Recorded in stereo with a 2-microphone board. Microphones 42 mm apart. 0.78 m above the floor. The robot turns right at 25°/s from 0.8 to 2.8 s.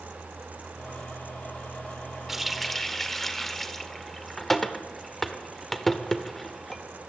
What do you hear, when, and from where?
2.3 s a running tap: 5° right (ahead or behind), 1.7 m; by 6.8 s 5° left (ahead or behind), 1.7 m